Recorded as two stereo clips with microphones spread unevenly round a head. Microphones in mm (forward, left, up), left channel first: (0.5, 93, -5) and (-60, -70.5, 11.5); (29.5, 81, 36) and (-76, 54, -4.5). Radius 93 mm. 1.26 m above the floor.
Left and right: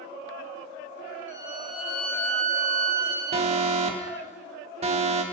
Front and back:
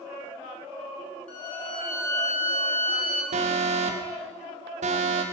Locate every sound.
1.3 s a violin: 15° left, 3 m
3.3 s an alarm: 165° right, 1.6 m